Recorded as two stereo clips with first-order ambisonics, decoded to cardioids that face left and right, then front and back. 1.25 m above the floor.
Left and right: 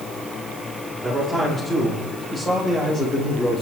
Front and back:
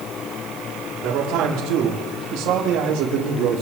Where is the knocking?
I don't hear knocking.